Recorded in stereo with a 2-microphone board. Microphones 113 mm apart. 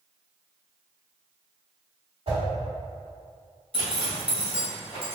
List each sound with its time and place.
2.3 s a whoosh: 55° right (ahead or behind), 1.8 m
3.7 s a zipper: 50° right (ahead or behind), 1.9 m